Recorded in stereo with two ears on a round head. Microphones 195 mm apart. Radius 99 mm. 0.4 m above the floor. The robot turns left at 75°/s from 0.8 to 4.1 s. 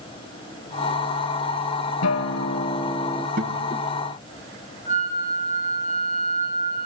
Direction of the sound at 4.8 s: 35° left (ahead or behind).